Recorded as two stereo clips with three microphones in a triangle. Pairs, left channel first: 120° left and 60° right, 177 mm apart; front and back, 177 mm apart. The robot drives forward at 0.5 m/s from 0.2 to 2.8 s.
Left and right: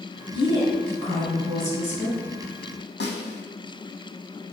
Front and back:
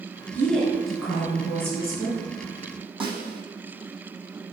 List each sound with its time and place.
0.3 s a woman speaking: 75° left, 1.7 m; by 2.2 s 125° left, 1.8 m
3.0 s a snare drum: 120° left, 1.0 m